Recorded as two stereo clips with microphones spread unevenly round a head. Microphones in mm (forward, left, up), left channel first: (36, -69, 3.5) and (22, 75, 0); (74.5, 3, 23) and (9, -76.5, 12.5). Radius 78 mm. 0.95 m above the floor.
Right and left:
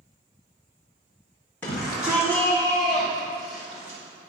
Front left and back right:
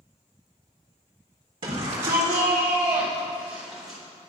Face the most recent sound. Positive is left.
turn(degrees=145)